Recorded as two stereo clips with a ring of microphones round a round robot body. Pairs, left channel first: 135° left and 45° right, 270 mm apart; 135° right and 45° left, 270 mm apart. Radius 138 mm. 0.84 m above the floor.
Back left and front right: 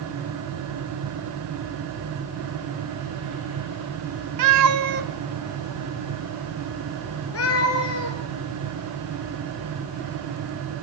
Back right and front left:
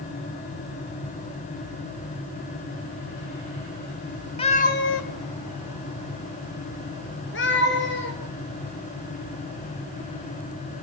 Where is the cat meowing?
65° right, 1.6 m; by 8.2 s 170° left, 4.5 m.